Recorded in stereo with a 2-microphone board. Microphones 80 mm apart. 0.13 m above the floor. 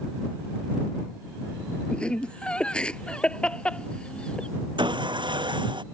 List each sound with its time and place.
1.9 s laughter: 10° left (ahead or behind)
4.8 s sawing: 80° right